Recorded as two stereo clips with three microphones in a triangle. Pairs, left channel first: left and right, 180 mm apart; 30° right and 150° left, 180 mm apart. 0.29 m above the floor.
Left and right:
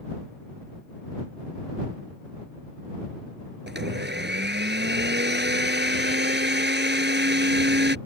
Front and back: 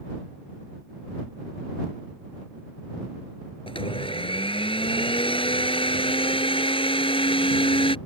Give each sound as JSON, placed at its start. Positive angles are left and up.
{"t": 3.7, "sound": "a blender", "azimuth_deg": -90}